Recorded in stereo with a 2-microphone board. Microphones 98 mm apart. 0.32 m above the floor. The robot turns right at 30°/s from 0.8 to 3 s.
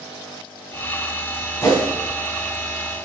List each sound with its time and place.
1.6 s a whoosh: 40° left (ahead or behind), 2 m; by 1.9 s 35° left (ahead or behind), 2 m